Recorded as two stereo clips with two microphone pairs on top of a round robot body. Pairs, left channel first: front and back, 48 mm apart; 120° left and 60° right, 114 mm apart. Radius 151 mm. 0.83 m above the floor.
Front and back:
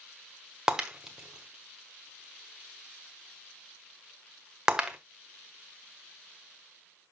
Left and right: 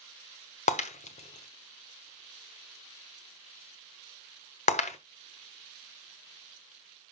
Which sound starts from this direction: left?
Breaking glass, at 0.7 s.